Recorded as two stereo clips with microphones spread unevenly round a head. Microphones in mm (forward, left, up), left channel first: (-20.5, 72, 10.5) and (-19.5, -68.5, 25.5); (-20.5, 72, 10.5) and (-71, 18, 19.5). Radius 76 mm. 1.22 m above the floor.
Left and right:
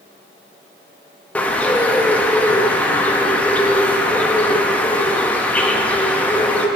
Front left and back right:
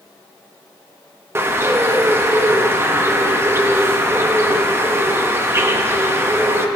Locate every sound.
1.4 s a bird: 175° left, 1.0 m